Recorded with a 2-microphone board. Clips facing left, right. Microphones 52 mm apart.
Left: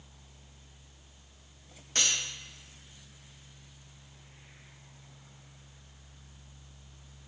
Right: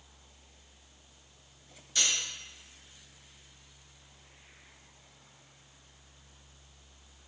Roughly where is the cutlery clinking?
Left.